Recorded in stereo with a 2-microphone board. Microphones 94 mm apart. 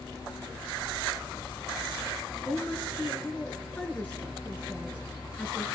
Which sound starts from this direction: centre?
A woman speaking, at 2.5 s.